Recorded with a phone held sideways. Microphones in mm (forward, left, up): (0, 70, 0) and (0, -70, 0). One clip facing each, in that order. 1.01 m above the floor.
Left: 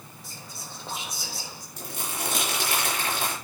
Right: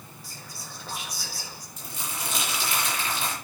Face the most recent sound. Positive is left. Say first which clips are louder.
# left 3 dB
turn(degrees=75)  # may be behind; listen again after turning